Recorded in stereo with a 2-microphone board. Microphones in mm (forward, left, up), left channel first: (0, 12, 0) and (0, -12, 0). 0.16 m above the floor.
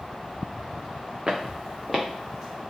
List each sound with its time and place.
1.3 s footsteps: 15° right (ahead or behind), 0.7 m; by 2.6 s 20° left (ahead or behind), 1.1 m